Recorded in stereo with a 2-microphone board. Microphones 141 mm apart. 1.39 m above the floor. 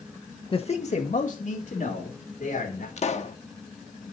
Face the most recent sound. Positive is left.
turn(degrees=50)  # may be behind; listen again after turning